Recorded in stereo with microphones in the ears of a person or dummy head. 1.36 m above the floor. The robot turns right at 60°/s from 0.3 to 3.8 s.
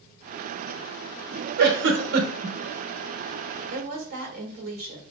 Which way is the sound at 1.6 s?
75° right (ahead or behind).